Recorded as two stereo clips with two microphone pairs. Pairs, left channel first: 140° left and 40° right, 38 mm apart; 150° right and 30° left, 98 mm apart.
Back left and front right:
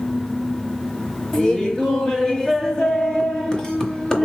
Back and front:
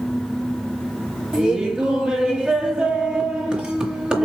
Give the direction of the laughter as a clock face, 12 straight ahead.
9 o'clock.